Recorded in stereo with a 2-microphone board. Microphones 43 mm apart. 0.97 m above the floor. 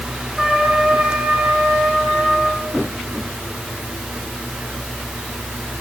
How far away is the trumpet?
About 5 m.